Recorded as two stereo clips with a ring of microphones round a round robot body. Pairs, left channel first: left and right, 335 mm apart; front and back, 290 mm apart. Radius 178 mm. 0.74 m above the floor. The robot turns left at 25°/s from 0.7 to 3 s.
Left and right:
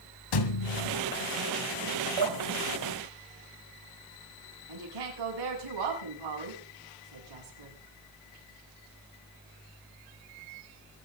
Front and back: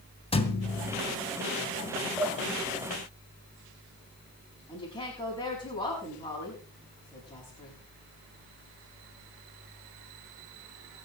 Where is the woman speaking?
75° right, 7 m.